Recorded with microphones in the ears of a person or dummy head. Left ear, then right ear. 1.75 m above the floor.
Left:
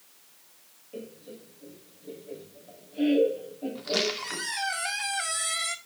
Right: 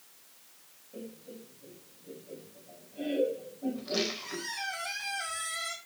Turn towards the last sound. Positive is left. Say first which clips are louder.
# left 6 dB
turn(degrees=60)  # may be behind; listen again after turning